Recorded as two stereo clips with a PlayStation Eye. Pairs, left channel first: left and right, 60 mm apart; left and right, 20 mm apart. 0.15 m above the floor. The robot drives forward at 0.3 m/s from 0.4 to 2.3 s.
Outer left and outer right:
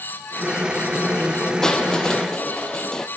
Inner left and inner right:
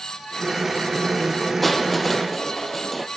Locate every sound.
1.6 s crushing: 10° left (ahead or behind), 1.4 m